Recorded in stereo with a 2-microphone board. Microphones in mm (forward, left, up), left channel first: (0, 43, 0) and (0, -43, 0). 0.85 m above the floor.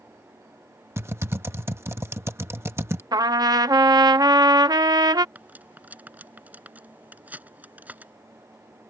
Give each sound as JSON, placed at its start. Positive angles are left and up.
{"t": 1.0, "sound": "typing on a keyboard", "side_deg": -30}
{"t": 3.1, "sound": "a trumpet", "side_deg": -55}
{"t": 5.3, "sound": "cutlery clinking", "side_deg": -20}